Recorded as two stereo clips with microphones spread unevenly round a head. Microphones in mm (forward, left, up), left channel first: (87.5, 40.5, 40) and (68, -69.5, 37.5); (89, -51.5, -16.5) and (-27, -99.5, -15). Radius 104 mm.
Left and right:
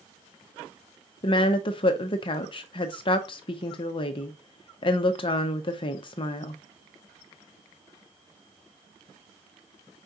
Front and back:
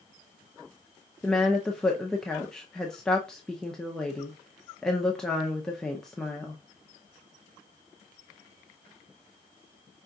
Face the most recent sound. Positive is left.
turn(degrees=110)